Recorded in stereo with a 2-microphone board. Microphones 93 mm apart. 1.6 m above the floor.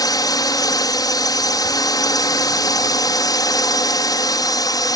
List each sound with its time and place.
0.0 s a drone: 40° left (ahead or behind)